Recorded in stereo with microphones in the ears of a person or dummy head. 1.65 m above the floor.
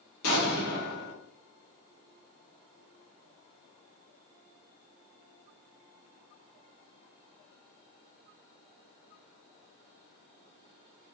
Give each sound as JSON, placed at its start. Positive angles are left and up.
{"t": 0.2, "sound": "an explosion", "side_deg": 70, "distance_m": 1.5}